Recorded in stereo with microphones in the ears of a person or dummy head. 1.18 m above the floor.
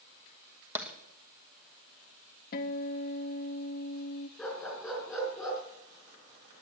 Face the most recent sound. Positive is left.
turn(degrees=5)  # may be behind; listen again after turning